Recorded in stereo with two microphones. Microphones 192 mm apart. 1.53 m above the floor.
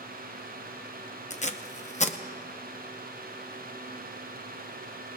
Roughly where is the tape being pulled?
Left.